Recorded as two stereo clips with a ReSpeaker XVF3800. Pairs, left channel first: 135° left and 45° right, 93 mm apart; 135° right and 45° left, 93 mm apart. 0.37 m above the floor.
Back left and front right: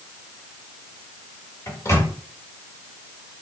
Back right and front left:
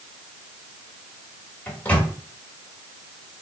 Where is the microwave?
160° left, 1.3 m.